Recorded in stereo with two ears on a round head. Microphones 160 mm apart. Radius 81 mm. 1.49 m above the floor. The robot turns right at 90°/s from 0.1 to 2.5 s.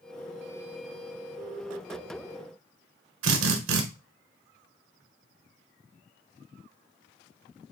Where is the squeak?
I don't hear a squeak.